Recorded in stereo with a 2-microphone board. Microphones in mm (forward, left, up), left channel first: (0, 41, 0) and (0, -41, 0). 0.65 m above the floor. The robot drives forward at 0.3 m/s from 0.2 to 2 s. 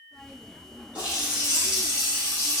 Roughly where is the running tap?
Centre.